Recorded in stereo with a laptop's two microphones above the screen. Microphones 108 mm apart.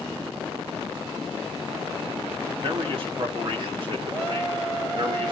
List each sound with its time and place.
2.6 s a man speaking: 55° right (ahead or behind), 1.7 m; by 5.3 s 50° right (ahead or behind), 3 m